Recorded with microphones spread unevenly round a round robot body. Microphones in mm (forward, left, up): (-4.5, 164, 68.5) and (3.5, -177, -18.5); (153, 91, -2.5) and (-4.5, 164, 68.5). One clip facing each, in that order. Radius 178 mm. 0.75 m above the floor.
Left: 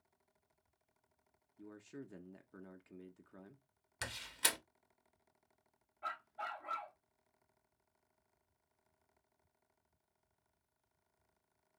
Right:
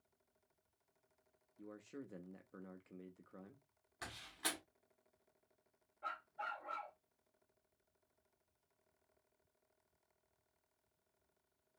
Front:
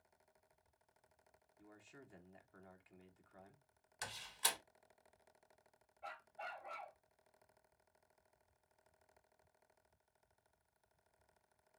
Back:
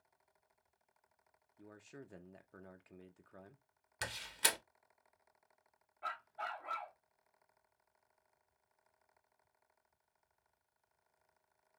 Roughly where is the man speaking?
Behind.